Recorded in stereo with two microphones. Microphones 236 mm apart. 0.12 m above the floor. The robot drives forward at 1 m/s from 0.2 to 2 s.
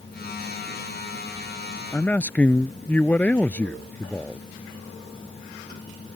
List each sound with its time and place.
1.9 s a man speaking: 5° left (ahead or behind)